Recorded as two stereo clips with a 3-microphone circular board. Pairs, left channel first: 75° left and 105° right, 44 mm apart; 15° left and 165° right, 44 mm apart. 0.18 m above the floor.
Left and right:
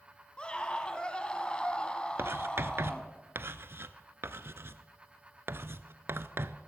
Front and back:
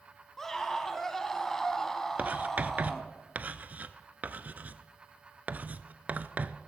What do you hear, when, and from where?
0.4 s a scream: 75° left, 1.0 m
2.2 s writing: 120° right, 0.5 m